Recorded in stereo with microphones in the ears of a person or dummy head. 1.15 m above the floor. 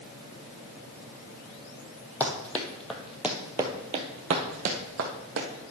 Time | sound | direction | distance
2.2 | running footsteps | 10° left (ahead or behind) | 1.9 m